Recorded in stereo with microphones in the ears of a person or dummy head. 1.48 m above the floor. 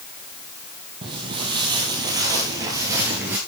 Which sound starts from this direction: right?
Footsteps, at 1.0 s.